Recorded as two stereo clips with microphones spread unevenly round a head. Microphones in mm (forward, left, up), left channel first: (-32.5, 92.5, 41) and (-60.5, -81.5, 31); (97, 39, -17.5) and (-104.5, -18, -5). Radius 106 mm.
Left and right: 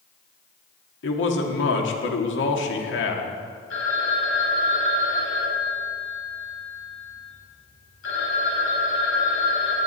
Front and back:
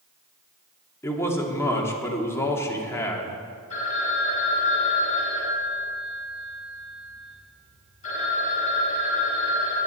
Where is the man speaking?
95° left, 1.8 m.